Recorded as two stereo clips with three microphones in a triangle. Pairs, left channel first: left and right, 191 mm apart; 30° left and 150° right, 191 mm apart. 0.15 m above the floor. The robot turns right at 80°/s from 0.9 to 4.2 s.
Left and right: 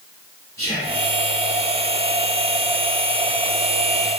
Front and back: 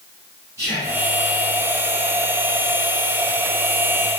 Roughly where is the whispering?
Behind left.